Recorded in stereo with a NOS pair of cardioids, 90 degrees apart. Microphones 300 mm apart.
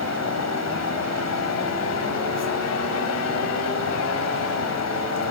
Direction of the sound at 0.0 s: 60° left.